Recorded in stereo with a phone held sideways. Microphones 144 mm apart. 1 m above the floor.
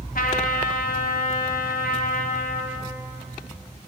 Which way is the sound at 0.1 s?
75° left (ahead or behind).